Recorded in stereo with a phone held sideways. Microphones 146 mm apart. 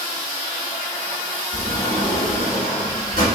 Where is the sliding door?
75° left (ahead or behind), 4 m.